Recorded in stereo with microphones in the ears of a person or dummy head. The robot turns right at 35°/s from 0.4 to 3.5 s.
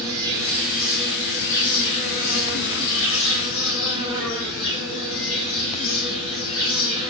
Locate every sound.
0.0 s an insect: 15° right, 2 m; by 7.1 s 90° left, 2 m